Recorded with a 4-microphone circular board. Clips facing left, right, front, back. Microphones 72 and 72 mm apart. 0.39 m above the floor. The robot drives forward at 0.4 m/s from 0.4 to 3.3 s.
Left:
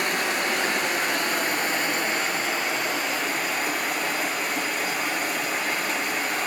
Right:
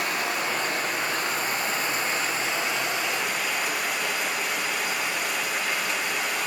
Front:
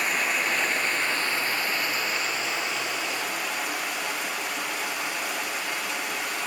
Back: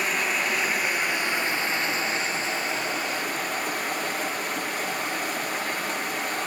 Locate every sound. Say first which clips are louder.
0.0 s running water: left 2 dB, even; 90° left, 1.2 m; by 6.5 s 135° left, 1.7 m